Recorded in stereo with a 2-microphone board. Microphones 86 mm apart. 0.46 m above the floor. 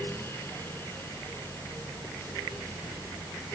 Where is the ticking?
No ticking in this recording.